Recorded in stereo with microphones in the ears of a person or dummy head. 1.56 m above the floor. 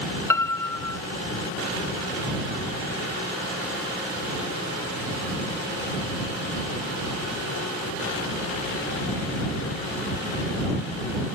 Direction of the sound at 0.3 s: 15° left (ahead or behind).